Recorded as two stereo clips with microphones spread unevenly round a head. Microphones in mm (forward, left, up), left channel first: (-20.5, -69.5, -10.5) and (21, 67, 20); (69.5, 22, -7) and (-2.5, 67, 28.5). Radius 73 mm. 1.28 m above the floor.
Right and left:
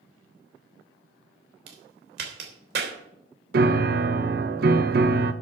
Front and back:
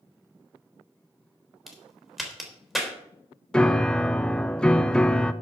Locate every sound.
1.7 s a crack: 60° left, 3.5 m
3.5 s a piano: 45° left, 1.0 m